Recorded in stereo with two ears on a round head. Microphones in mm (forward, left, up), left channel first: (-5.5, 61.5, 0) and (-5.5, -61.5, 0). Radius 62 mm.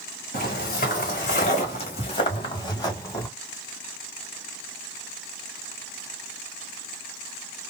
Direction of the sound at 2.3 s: 20° left (ahead or behind).